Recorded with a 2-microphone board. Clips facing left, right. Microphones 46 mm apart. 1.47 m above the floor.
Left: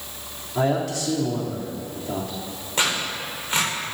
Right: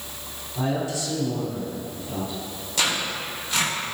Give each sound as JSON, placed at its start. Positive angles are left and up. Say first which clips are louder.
{"t": 0.6, "sound": "a man speaking", "louder": "left 4 dB", "side_deg": 75, "distance_m": 3.0}
{"t": 2.8, "sound": "tearing paper", "louder": "left 1 dB", "side_deg": 35, "distance_m": 5.0}